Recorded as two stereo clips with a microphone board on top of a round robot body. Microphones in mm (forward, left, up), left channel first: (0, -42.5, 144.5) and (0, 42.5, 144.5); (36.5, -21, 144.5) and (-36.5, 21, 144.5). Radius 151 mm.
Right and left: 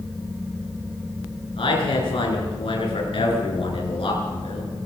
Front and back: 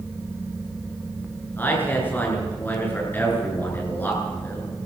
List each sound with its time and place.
1.6 s a man speaking: 100° right, 9 m